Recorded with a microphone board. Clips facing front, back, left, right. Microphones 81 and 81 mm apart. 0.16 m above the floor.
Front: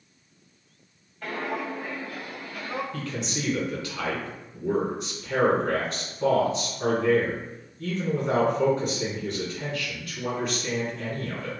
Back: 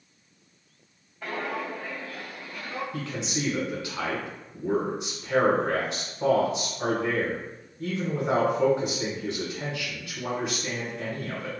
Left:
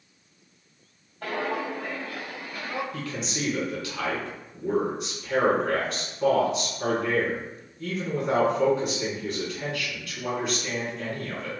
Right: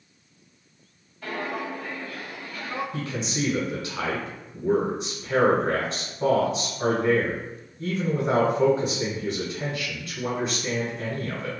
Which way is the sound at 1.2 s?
100° left.